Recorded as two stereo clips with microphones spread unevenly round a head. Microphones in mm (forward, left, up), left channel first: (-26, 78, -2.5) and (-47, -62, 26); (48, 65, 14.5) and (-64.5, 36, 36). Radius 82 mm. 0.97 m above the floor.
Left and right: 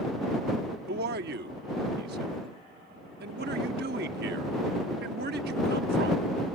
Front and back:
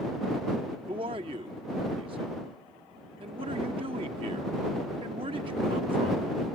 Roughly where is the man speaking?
Right.